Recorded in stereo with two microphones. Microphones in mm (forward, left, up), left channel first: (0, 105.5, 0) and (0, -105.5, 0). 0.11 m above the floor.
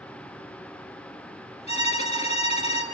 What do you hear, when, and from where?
1.7 s a violin: 30° left (ahead or behind), 2.0 m